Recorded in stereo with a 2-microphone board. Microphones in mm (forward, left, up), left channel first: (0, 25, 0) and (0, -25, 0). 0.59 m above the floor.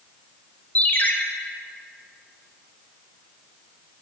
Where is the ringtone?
35° left (ahead or behind), 0.7 m.